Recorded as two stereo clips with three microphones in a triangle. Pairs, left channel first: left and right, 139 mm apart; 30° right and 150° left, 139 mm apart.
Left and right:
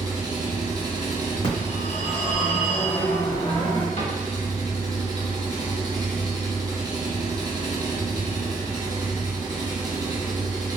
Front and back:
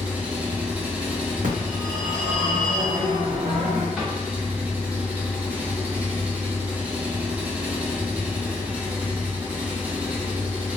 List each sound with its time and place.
0.0 s an engine running: 135° right, 0.7 m
1.4 s a phone ringing: 140° left, 1.4 m
4.0 s a cupboard door: 55° left, 1.3 m